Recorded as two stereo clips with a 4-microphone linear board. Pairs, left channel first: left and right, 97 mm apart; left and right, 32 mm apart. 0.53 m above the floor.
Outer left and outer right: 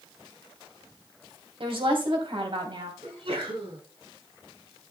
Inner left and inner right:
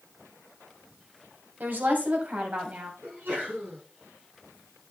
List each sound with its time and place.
1.6 s a woman speaking: 70° right (ahead or behind), 3 m; by 2.9 s 60° right (ahead or behind), 3 m
3.0 s a sneeze: 75° right (ahead or behind), 6.5 m